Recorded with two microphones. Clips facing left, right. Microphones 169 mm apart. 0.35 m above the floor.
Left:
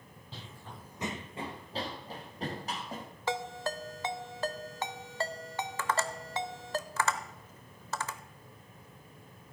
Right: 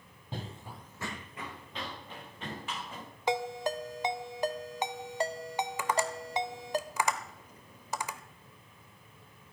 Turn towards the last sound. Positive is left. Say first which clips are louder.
# even
turn(degrees=-15)  # may be behind; listen again after turning